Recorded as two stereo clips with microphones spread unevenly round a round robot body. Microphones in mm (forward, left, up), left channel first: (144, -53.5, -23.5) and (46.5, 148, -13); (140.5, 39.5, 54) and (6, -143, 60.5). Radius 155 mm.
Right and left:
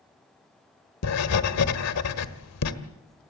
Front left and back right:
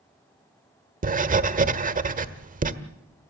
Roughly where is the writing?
Right.